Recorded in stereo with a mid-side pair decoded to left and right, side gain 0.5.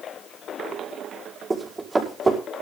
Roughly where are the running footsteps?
Ahead.